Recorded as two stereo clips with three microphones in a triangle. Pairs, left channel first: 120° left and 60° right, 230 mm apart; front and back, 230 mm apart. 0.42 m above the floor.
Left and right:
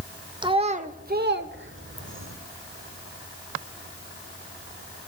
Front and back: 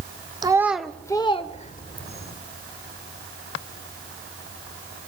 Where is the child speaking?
115° right, 0.8 m; by 2.3 s 40° right, 1.3 m.